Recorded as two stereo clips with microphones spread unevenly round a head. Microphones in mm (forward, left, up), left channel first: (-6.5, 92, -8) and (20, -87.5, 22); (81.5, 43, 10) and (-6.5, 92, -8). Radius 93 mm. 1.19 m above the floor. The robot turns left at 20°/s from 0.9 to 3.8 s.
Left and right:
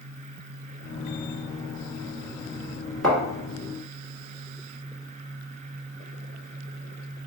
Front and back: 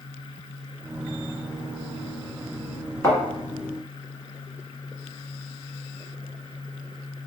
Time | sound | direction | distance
3.0 | a thud | straight ahead | 1.4 m